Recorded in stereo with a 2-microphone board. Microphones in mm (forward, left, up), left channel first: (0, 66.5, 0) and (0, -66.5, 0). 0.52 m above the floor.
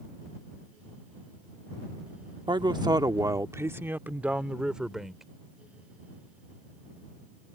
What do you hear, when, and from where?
2.5 s a man speaking: 35° right (ahead or behind); by 5.2 s centre (ahead or behind)